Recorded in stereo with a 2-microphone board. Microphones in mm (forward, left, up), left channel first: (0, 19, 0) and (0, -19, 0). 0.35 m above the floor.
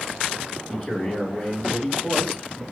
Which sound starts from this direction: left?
A man speaking, at 0.7 s.